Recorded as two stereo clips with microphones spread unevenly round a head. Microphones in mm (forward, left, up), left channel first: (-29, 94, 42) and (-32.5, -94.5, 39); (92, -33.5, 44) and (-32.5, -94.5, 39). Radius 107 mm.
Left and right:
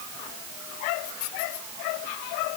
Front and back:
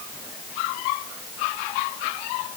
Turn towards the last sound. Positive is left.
No sound to turn to.